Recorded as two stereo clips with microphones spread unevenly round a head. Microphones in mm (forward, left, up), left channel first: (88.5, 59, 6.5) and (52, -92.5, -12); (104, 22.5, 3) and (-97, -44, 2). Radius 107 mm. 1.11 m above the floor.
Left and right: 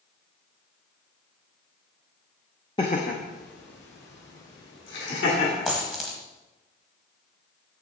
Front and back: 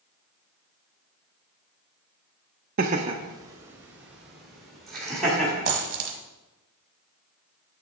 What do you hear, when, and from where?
2.8 s laughter: 150° left, 0.5 m; by 5.7 s 105° left, 2.5 m
5.7 s a dropped coin: 155° left, 1.3 m